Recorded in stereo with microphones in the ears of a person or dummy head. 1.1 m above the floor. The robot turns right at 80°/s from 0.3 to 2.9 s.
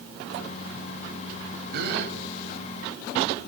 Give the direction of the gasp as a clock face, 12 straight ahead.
4 o'clock.